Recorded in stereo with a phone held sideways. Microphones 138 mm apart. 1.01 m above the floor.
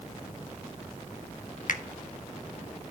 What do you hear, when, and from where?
1.7 s a finger snap: 70° left (ahead or behind), 1.2 m